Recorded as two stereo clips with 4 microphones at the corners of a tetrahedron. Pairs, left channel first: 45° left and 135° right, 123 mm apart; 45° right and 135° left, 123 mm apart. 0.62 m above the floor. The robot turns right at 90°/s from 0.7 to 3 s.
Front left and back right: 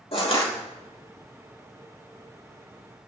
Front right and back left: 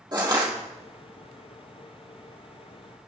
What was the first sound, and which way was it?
Crushing, 80° left.